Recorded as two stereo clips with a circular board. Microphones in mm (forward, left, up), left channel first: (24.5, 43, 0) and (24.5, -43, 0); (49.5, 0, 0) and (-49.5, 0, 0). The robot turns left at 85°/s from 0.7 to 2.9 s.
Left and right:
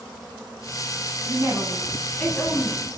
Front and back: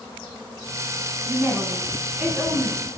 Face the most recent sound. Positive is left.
turn(degrees=90)